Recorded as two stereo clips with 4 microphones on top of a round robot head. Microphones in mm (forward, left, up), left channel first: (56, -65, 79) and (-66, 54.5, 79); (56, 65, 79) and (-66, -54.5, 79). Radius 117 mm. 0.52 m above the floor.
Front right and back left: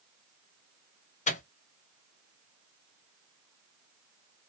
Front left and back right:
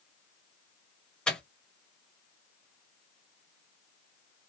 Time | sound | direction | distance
1.3 | a microwave | 40° right | 0.9 m